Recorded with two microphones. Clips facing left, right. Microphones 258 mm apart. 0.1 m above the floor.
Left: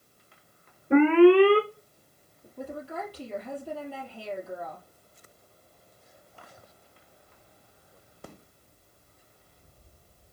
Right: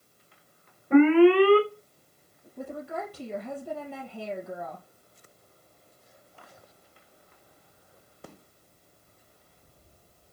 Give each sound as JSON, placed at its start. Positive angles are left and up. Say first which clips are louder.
{"t": 0.9, "sound": "an alarm", "louder": "even", "side_deg": 25, "distance_m": 1.2}
{"t": 2.6, "sound": "a woman speaking", "louder": "right 1 dB", "side_deg": -60, "distance_m": 3.0}